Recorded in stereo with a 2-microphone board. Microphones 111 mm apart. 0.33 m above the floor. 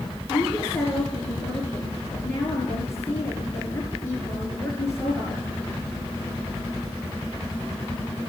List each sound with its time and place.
0.3 s a woman speaking: 25° left (ahead or behind), 5.5 m